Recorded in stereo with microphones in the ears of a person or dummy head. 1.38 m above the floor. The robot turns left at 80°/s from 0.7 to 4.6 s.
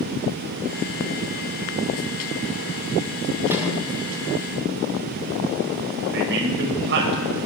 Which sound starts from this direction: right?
A man speaking, at 6.1 s.